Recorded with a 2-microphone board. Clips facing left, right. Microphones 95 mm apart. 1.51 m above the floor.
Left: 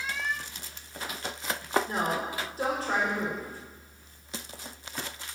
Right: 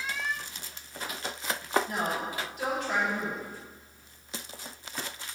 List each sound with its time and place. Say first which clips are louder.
1.9 s a woman speaking: left 2 dB; 35° left (ahead or behind), 5 m